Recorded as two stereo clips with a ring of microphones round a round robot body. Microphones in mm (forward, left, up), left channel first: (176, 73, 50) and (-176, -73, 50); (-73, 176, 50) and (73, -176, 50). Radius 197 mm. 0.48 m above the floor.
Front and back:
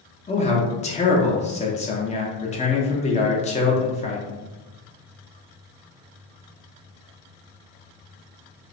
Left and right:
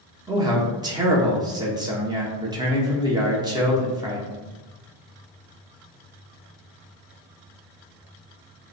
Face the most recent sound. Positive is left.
turn(degrees=-10)